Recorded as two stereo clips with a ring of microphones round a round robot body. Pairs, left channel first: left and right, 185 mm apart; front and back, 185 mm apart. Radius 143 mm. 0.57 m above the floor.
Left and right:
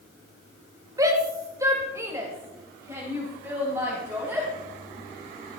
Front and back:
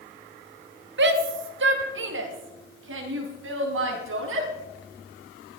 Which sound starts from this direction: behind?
A shout, at 1.0 s.